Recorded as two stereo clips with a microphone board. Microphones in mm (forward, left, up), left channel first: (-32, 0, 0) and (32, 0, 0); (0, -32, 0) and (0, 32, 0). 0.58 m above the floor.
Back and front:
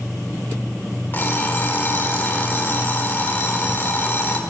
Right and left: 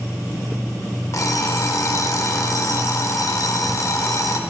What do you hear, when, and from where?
1.1 s an alarm clock: 120° right, 0.9 m